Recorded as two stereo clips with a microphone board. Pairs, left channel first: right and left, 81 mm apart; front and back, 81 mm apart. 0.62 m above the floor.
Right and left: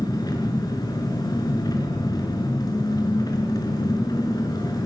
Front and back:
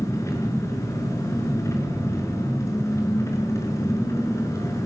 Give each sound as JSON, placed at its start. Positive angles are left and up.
{"t": 0.0, "sound": "an engine running", "azimuth_deg": -50, "distance_m": 5.5}